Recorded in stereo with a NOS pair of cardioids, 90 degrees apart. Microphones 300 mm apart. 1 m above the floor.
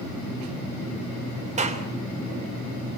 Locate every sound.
1.6 s a clap: 25° right, 3 m